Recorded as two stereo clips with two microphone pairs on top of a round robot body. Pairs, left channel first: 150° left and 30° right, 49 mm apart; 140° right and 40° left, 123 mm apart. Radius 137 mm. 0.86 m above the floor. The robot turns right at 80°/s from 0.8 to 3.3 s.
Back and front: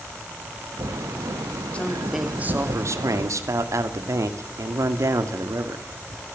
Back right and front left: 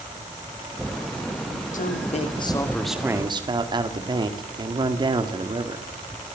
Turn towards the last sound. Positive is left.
turn(degrees=-15)